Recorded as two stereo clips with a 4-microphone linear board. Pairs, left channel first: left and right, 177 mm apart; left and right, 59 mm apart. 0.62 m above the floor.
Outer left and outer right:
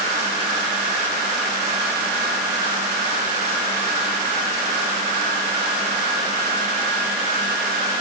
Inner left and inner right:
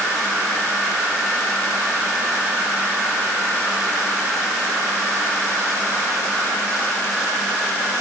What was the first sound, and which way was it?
Only background noise.